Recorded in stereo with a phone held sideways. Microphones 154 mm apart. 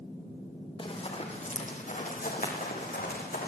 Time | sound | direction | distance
0.8 | running footsteps | 35° left (ahead or behind) | 4.5 m